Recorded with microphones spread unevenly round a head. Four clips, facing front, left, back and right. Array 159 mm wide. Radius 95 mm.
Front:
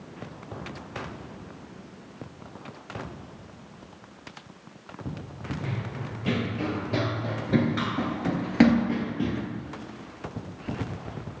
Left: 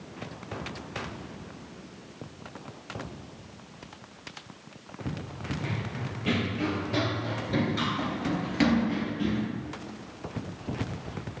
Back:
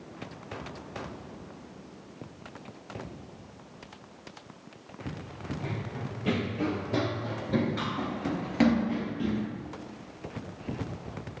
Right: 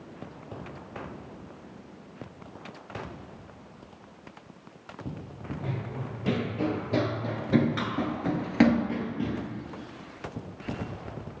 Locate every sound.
5.6 s running footsteps: 155° right, 1.8 m; by 9.4 s 10° right, 1.6 m